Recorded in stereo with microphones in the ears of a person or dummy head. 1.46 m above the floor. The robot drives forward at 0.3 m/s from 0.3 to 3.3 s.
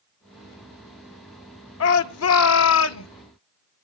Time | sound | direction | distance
1.8 | a shout | 80° left | 1.4 m